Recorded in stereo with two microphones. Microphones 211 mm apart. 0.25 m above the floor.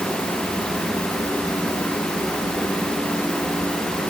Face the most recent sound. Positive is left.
No sound to turn to.